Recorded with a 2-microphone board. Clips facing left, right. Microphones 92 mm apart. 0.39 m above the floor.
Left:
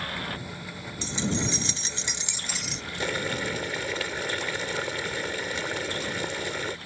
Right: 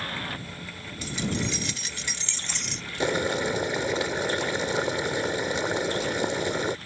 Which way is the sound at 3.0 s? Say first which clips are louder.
Right 5 dB; 20° right (ahead or behind).